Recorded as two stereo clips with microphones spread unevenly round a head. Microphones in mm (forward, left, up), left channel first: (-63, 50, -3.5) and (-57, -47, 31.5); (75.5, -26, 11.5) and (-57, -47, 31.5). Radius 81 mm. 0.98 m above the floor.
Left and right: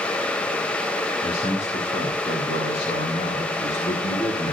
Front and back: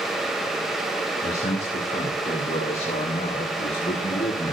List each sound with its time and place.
1.2 s a man speaking: 55° left, 9 m; by 4.5 s 70° left, 9 m